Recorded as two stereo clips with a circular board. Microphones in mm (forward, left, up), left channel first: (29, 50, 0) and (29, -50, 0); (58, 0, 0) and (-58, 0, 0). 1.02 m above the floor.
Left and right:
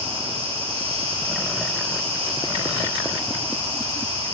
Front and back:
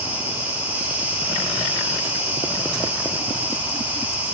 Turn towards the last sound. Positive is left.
turn(degrees=-105)